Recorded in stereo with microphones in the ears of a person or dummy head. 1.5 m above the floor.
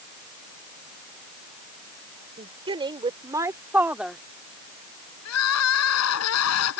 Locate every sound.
2.4 s a woman speaking: 30° right (ahead or behind); by 4.2 s centre (ahead or behind)
5.2 s crying: 75° left (ahead or behind)